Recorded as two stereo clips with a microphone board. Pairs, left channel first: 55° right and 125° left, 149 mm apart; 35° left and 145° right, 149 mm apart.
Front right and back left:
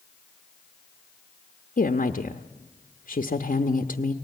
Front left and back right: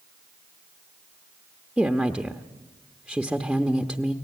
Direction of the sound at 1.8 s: 55° right.